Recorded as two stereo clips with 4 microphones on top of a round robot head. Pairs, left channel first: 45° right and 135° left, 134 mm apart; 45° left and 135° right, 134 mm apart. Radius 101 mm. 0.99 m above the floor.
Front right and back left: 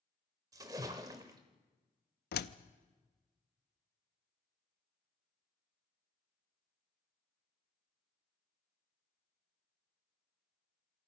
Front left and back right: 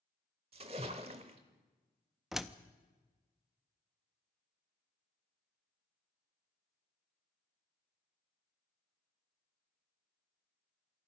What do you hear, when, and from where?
0.5 s a splash: 170° right, 0.8 m
2.3 s a door slam: 45° right, 0.6 m